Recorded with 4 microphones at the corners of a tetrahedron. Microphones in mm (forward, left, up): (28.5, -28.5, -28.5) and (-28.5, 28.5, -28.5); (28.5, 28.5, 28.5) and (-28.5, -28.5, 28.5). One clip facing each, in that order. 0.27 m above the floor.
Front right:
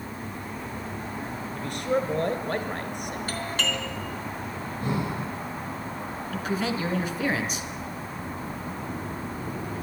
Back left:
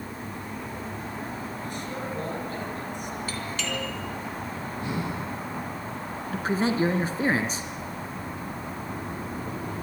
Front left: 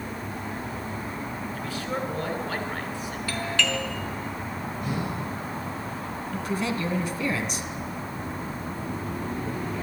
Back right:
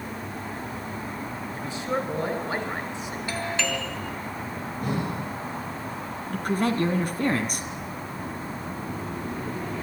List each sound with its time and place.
1.6 s a man speaking: 70° right, 3 m
3.3 s a doorbell: 70° right, 3 m
4.8 s breathing: 95° right, 9 m
6.3 s a man speaking: 170° right, 2 m